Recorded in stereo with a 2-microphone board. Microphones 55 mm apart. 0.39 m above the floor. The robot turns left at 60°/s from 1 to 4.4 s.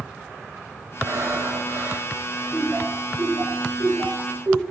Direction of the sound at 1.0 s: 70° right.